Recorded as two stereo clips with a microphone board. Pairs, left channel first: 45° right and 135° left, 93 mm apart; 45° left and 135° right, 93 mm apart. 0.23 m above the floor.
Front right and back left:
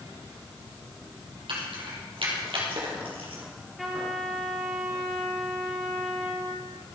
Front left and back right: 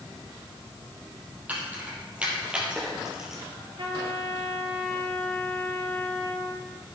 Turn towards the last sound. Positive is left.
turn(degrees=-135)